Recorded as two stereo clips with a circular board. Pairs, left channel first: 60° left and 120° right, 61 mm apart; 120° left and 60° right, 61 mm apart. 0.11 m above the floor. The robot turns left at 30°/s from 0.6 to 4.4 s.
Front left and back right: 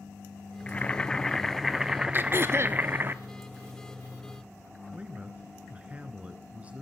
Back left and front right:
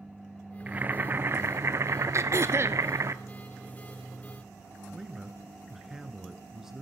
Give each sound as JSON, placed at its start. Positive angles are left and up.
{"t": 0.7, "sound": "boiling", "azimuth_deg": 0, "distance_m": 0.6}
{"t": 2.1, "sound": "throat clearing", "azimuth_deg": -75, "distance_m": 0.6}
{"t": 4.9, "sound": "a man speaking", "azimuth_deg": -135, "distance_m": 1.4}